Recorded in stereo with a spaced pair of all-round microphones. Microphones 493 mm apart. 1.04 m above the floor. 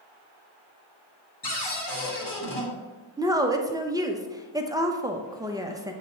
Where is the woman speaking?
10° right (ahead or behind), 0.5 m.